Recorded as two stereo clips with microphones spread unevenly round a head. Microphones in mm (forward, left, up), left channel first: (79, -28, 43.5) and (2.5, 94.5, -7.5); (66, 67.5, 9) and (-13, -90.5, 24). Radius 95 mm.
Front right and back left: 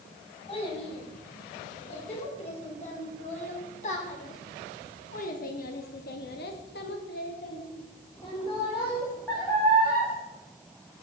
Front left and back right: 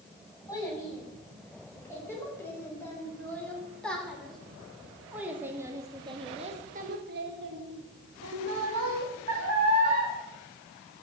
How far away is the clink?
I don't hear a clink.